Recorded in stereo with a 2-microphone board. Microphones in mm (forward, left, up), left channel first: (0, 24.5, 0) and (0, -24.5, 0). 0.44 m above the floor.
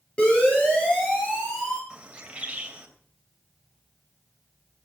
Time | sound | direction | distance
0.2 | a siren | 20° left (ahead or behind) | 9.5 m
1.9 | a bird | 25° right (ahead or behind) | 2.5 m